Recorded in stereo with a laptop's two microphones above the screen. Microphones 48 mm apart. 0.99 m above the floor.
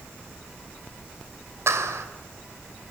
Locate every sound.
1.7 s a clap: 80° right, 3 m